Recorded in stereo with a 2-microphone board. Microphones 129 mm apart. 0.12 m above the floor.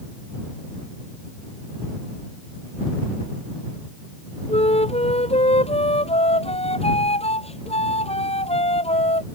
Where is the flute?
55° left (ahead or behind).